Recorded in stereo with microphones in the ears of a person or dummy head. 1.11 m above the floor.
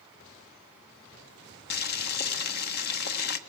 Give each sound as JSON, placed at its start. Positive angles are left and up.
{"t": 1.7, "sound": "boiling", "side_deg": 55, "distance_m": 1.5}